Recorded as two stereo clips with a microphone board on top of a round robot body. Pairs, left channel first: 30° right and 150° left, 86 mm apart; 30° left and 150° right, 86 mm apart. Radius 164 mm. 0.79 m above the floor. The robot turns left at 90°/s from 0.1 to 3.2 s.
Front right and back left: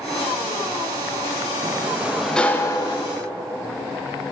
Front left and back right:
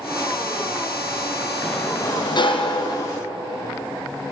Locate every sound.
1.6 s a sliding door: 115° left, 0.9 m; by 3.1 s 20° right, 0.9 m